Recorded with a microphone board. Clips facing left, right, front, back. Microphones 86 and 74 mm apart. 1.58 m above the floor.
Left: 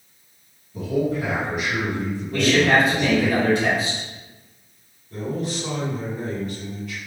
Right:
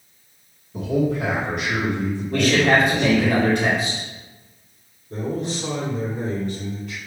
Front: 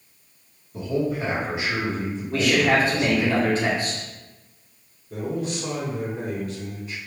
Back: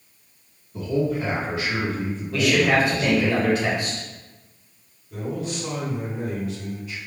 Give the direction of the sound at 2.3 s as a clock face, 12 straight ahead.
2 o'clock.